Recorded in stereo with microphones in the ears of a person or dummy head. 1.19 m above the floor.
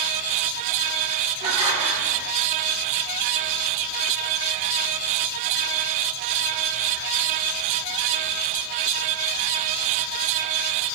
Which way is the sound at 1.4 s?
30° right (ahead or behind).